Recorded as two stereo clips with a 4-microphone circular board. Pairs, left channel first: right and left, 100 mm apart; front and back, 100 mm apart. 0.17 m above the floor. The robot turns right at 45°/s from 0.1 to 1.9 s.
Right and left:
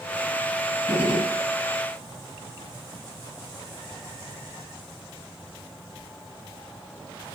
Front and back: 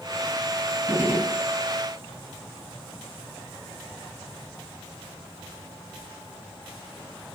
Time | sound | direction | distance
0.9 | a gunshot | 160° right | 1.7 m